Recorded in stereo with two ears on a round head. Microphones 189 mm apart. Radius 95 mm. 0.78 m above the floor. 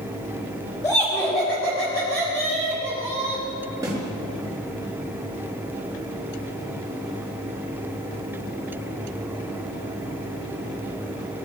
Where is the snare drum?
15° right (ahead or behind), 5.5 m.